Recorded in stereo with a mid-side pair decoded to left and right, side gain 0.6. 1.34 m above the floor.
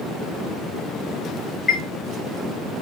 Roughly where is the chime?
Ahead.